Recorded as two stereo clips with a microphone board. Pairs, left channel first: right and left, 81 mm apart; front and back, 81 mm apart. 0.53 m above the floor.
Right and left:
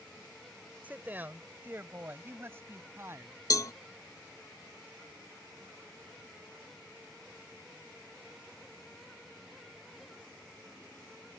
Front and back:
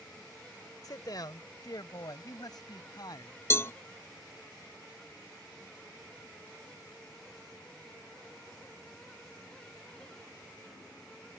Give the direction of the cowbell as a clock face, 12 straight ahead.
2 o'clock.